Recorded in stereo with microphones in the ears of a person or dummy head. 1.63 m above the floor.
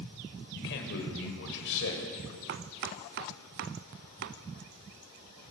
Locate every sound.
0.5 s a man speaking: 65° left (ahead or behind), 6.5 m; by 2.4 s 75° left (ahead or behind), 7.5 m
2.5 s chopping: 65° right (ahead or behind), 1.0 m